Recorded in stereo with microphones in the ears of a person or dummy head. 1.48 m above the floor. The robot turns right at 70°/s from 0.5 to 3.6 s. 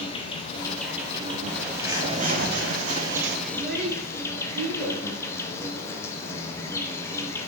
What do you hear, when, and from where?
0.0 s an insect: 155° left, 0.9 m; by 7.5 s 10° left, 0.9 m
1.5 s a bird: 170° left, 0.8 m; by 3.4 s 60° right, 0.8 m
3.5 s a child speaking: 10° left (ahead or behind), 3.5 m; by 5.0 s 15° left (ahead or behind), 3.5 m